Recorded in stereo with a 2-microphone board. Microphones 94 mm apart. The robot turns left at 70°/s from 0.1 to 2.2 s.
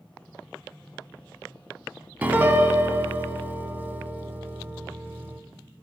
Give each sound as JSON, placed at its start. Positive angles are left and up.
{"t": 2.2, "sound": "a piano", "side_deg": -20, "distance_m": 0.5}